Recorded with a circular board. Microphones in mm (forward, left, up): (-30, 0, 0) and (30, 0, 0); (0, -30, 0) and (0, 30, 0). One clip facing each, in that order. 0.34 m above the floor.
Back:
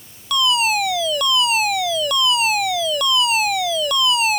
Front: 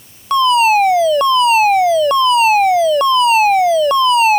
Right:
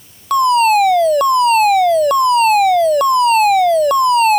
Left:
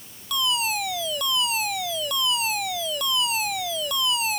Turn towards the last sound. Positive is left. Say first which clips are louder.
# front 8 dB, right 16 dB
turn(degrees=-55)